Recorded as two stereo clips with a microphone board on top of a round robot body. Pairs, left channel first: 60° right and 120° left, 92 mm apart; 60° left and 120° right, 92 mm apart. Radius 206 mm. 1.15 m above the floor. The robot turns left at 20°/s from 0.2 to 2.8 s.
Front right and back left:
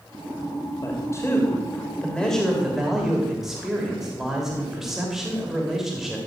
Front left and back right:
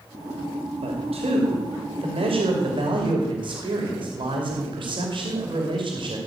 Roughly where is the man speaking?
Behind right.